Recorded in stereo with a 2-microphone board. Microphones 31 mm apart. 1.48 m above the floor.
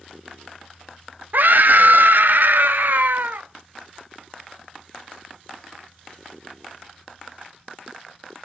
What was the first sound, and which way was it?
A scream, 65° right (ahead or behind).